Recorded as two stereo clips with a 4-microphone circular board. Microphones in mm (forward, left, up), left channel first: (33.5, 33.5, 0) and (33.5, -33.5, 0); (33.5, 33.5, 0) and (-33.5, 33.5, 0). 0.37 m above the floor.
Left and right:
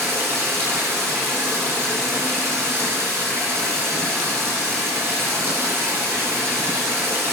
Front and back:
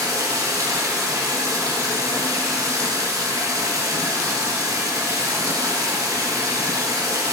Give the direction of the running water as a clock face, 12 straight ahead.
5 o'clock.